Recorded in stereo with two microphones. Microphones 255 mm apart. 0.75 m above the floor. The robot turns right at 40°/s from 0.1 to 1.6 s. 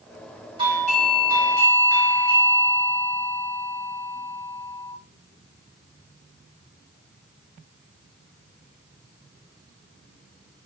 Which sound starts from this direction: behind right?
A doorbell, at 0.6 s.